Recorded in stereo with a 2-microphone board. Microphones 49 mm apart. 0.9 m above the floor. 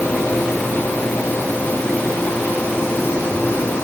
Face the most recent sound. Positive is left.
No sound to turn to.